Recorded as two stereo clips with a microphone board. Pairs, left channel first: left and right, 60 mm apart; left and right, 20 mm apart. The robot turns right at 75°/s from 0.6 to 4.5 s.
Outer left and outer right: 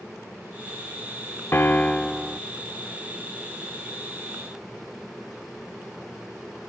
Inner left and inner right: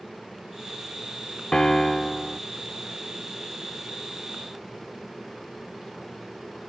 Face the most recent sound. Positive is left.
turn(degrees=-5)